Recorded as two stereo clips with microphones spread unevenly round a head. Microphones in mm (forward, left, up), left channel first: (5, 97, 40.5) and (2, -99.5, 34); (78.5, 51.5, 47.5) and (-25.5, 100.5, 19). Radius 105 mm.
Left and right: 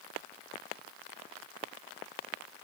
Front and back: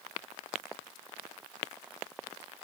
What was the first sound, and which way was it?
Only background noise.